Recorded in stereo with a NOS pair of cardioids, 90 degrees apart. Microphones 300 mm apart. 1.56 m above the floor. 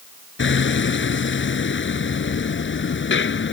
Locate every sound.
0.4 s hammering: 40° left